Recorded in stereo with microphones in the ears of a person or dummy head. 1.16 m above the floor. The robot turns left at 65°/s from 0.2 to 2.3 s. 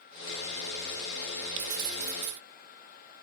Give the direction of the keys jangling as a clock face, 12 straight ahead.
2 o'clock.